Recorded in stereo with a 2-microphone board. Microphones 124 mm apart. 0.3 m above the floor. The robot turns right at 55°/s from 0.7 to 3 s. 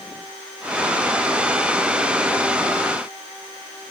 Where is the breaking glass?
I don't hear breaking glass.